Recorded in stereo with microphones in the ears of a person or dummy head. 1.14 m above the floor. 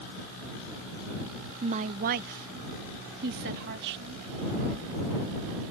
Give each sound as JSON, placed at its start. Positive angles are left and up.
{"t": 1.6, "sound": "a woman speaking", "side_deg": -30}